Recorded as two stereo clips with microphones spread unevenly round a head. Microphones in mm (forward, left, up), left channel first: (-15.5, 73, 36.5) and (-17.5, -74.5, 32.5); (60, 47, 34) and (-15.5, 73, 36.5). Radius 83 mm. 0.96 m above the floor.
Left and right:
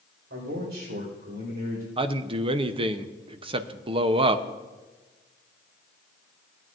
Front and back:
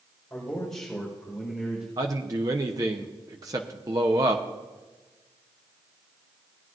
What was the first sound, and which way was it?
A man speaking, 95° right.